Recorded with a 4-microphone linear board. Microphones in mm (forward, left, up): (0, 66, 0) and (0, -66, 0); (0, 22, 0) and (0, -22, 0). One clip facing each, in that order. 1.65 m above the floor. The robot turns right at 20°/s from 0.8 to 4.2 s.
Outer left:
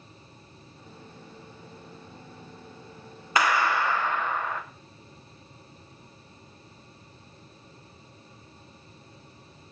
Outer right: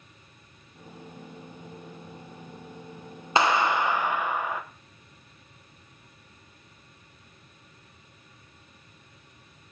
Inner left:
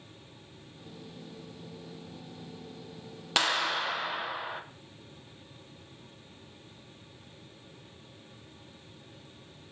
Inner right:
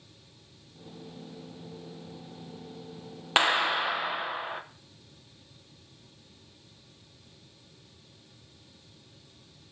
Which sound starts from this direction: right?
A clap, at 3.4 s.